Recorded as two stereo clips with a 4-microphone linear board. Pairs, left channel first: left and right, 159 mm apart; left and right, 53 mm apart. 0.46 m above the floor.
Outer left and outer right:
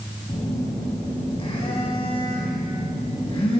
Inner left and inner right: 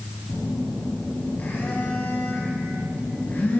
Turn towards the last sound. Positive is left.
turn(degrees=35)  # may be behind; listen again after turning